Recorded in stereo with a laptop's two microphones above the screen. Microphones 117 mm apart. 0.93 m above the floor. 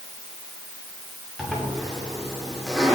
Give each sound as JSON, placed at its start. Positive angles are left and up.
{"t": 1.4, "sound": "a zipper", "side_deg": 0, "distance_m": 2.5}